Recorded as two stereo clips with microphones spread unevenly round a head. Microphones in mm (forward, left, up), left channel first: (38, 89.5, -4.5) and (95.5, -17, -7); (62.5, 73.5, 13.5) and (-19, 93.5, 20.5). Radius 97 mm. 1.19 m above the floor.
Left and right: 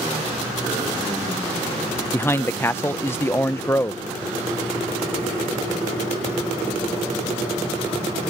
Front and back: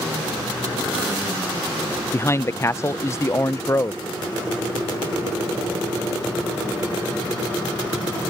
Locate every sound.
2.1 s a man speaking: 45° left